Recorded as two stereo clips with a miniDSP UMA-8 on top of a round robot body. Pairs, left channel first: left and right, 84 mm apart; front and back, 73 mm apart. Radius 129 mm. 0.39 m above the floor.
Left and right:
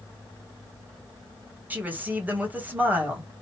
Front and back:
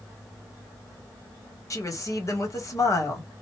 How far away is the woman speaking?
About 2 m.